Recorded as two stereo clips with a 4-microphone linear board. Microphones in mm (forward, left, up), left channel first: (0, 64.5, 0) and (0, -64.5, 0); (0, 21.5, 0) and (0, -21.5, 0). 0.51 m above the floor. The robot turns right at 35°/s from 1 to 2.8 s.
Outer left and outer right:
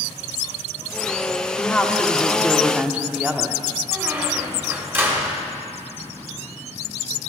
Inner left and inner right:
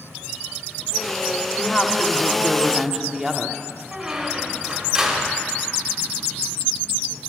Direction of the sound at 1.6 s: 155° left.